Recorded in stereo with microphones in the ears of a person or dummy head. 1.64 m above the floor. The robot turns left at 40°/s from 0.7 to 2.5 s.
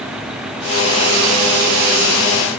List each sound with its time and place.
Only background noise.